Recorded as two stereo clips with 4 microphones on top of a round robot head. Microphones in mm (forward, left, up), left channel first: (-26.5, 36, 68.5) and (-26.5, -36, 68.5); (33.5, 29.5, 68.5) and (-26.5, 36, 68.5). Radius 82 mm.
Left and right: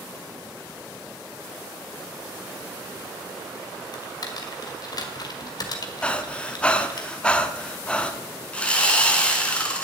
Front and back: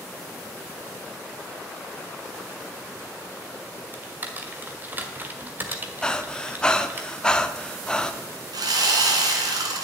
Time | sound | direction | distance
3.9 | typing on a keyboard | 115° left | 1.9 m
6.0 | breathing | 45° left | 1.1 m
8.5 | sawing | 165° left | 2.5 m